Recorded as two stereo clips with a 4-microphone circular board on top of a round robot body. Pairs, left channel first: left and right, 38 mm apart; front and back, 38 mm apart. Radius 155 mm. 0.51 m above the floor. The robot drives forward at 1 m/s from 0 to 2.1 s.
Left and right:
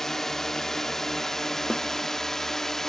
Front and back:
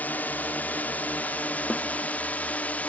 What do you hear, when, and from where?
0.0 s a drone: 10° left; by 2.9 s 15° left
1.7 s a snare drum: 30° left; by 1.9 s 35° left